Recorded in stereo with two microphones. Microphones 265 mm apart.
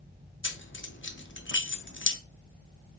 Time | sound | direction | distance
0.4 | keys jangling | 45° left (ahead or behind) | 0.6 m